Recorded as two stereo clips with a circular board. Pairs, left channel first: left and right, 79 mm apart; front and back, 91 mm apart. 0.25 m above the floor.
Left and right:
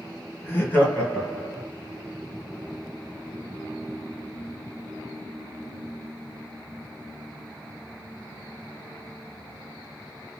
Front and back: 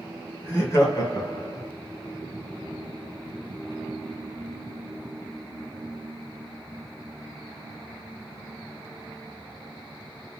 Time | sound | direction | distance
0.4 | laughter | 40° left | 1.3 m